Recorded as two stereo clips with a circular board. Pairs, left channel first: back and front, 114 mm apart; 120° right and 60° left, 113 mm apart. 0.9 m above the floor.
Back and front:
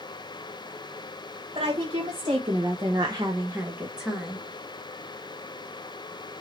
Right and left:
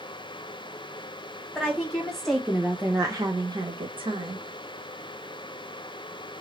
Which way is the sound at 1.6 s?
40° right.